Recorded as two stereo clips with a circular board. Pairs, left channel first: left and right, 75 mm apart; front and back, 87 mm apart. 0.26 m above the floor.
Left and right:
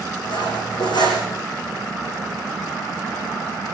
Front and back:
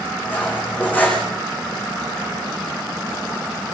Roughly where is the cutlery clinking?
Left.